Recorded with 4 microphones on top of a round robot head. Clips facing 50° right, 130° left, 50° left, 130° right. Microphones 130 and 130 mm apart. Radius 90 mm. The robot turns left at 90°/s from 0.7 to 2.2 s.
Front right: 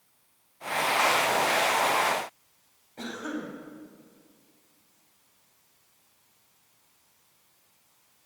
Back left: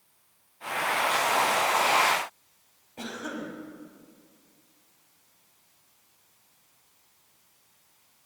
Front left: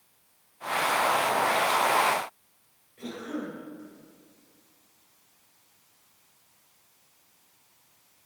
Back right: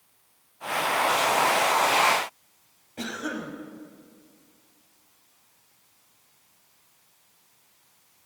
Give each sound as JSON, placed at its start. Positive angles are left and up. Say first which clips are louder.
{"t": 3.0, "sound": "a cough", "louder": "front right 1 dB, back right 2 dB", "azimuth_deg": -150, "distance_m": 5.0}